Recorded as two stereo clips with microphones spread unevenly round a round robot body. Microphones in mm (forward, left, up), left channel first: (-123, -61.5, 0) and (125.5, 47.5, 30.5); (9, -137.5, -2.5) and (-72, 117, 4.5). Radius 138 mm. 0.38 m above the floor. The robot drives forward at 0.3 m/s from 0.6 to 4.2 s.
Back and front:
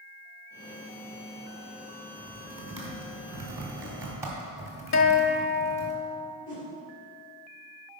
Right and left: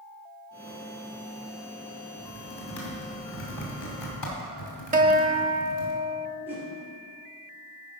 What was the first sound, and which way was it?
Typing on a keyboard, 45° right.